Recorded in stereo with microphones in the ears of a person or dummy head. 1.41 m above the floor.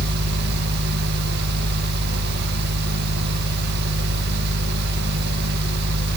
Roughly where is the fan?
Right.